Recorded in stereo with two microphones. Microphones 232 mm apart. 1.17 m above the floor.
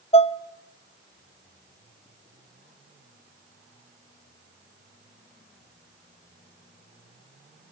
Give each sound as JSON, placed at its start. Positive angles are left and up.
{"t": 0.1, "sound": "dishes clattering", "side_deg": 25, "distance_m": 0.6}